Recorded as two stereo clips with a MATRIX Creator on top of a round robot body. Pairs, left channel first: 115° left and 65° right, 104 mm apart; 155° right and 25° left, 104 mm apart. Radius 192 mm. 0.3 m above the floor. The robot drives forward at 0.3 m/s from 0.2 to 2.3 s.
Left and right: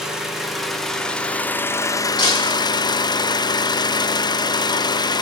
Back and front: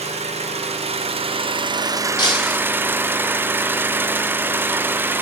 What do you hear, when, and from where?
0.0 s an engine running: 20° left, 0.8 m; by 5.2 s 85° left, 0.5 m
2.2 s breaking glass: 155° left, 1.2 m